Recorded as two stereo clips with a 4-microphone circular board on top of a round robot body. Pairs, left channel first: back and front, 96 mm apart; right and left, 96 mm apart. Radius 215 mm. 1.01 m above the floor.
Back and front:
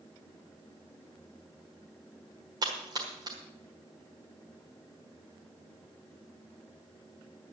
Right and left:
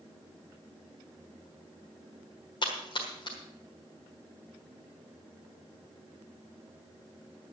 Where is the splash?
50° right, 1.4 m.